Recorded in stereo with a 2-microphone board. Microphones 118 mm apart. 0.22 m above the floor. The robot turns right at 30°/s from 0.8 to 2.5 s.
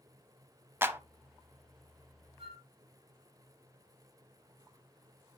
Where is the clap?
20° right (ahead or behind), 0.7 m.